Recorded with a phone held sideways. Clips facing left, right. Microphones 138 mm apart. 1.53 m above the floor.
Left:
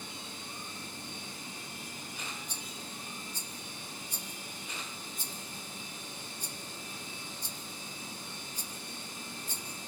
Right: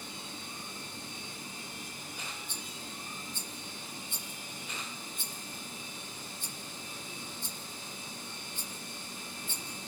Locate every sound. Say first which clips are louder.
2.5 s a rattle: even; 40° left (ahead or behind), 1.2 m